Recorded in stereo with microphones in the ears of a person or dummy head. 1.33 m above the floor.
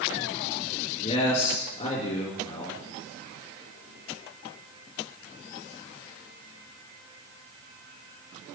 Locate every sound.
1.0 s a man speaking: 40° left (ahead or behind), 4 m